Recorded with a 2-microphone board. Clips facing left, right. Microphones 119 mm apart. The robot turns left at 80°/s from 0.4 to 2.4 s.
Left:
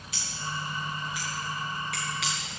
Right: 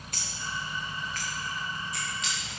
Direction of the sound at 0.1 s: 45° right (ahead or behind).